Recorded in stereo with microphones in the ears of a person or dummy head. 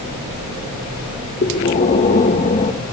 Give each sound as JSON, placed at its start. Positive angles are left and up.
{"t": 1.4, "sound": "breathing", "side_deg": 40, "distance_m": 2.0}